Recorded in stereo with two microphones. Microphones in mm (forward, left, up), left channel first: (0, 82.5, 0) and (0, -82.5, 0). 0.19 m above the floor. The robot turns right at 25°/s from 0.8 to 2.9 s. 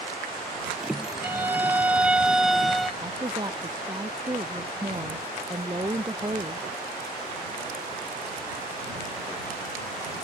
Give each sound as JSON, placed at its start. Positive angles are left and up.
{"t": 1.2, "sound": "a violin", "side_deg": -15}
{"t": 3.0, "sound": "a woman speaking", "side_deg": -25}